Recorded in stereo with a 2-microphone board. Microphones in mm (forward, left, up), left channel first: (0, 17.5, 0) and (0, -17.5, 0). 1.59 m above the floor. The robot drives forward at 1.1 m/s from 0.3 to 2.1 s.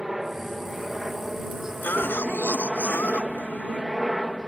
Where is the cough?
60° left (ahead or behind); by 3.8 s 75° left (ahead or behind).